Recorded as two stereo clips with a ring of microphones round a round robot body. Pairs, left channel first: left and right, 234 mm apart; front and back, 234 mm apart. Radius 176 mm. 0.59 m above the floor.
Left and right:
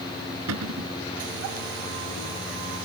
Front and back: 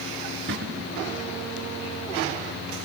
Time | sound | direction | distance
0.5 | a cupboard door | 120° right | ?